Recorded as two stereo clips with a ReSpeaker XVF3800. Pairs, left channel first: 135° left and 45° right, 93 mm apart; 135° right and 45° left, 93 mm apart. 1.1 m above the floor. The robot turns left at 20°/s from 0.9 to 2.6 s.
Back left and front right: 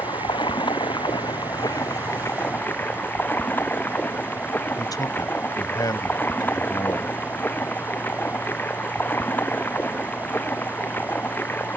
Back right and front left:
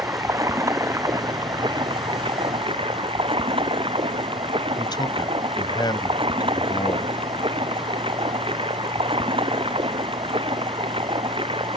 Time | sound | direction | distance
0.0 | running water | 100° left | ?
4.8 | a man speaking | 175° right | ?